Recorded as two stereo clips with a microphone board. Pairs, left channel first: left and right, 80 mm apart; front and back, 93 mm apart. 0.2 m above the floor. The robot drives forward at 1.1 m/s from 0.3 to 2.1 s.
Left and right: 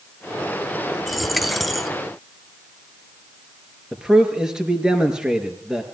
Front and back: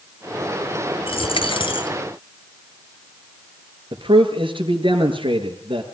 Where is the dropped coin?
Straight ahead, 2.0 m.